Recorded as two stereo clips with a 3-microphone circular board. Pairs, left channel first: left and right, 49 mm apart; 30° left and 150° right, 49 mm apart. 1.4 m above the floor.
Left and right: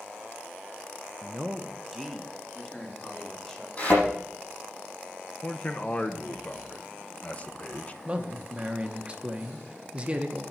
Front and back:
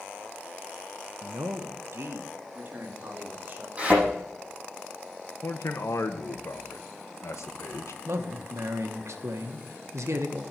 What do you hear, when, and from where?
1.2 s a man speaking: 145° right, 0.7 m; by 3.7 s 165° left, 3 m
3.8 s a thud: 145° left, 8 m
5.4 s a man speaking: 30° left, 1.1 m
8.1 s a man speaking: 155° right, 1.4 m